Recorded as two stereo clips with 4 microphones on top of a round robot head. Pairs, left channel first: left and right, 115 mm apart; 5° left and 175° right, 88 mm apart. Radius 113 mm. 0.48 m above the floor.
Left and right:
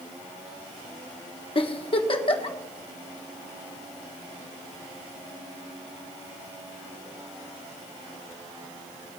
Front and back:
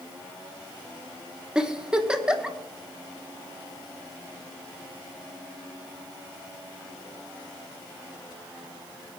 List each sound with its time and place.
1.6 s a giggle: 110° left, 1.4 m